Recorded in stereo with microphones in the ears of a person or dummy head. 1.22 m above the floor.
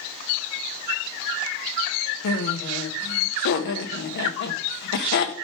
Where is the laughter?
60° left (ahead or behind), 0.9 m.